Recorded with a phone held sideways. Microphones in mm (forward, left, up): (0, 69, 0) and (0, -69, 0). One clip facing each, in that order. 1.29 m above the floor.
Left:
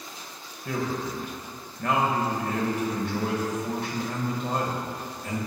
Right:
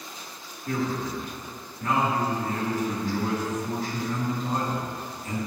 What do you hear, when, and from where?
0.7 s a man speaking: 70° left (ahead or behind), 1.5 m